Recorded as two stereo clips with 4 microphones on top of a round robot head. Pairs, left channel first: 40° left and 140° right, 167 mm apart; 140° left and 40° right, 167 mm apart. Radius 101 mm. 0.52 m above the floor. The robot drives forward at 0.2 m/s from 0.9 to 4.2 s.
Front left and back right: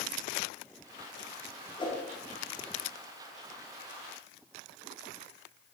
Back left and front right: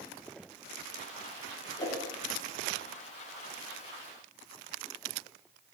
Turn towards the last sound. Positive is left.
turn(degrees=115)